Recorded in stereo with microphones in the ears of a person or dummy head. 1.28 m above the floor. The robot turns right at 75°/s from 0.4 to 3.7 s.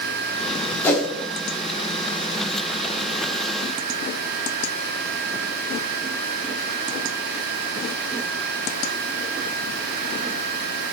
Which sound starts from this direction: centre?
A whoosh, at 0.8 s.